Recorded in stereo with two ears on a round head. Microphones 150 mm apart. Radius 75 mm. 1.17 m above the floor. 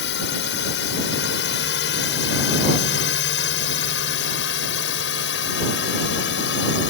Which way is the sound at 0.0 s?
75° left (ahead or behind).